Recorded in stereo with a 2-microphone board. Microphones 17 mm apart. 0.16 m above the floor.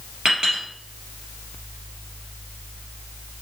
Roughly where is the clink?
Right.